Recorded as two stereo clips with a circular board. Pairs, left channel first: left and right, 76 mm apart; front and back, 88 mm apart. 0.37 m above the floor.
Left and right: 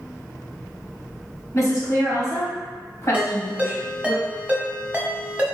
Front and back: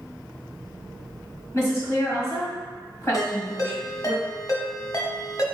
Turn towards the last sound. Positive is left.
turn(degrees=-25)